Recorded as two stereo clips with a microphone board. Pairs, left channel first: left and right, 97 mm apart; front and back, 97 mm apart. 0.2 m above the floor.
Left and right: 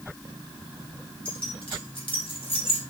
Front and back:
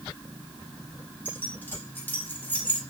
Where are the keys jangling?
70° left, 4.5 m.